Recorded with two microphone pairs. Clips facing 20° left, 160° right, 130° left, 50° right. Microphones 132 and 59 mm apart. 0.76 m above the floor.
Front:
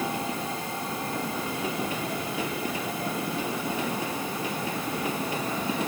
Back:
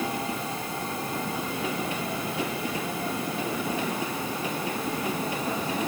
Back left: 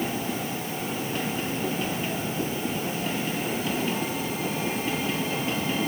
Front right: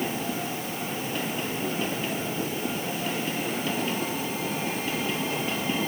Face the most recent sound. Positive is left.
No sound to turn to.